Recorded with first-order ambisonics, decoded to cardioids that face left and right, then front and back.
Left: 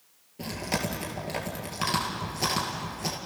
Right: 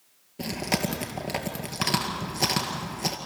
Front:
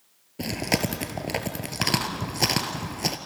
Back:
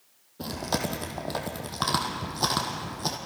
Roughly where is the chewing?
Ahead.